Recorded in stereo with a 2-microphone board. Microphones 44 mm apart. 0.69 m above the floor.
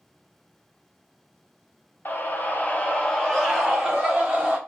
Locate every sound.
2.0 s a scream: 45° left (ahead or behind), 0.9 m; by 4.6 s 20° right (ahead or behind), 1.0 m